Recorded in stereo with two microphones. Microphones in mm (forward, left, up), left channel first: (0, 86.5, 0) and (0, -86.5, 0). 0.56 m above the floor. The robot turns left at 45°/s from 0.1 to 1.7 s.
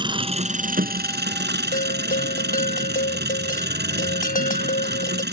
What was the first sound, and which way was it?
An engine running, 25° right.